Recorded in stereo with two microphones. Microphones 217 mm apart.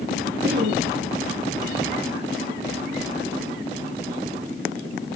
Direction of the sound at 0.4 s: 65° right (ahead or behind).